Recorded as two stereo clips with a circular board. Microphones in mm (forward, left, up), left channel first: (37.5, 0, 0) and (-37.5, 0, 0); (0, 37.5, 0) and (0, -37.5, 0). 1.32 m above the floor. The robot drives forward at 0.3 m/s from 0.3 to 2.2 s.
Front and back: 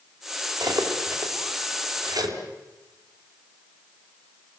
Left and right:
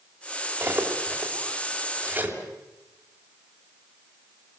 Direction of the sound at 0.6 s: 150° right.